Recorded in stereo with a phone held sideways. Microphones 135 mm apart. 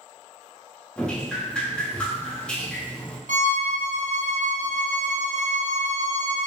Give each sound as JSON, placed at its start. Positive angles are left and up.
{"t": 1.0, "sound": "dripping", "side_deg": 10, "distance_m": 0.6}
{"t": 3.3, "sound": "a violin", "side_deg": -70, "distance_m": 0.6}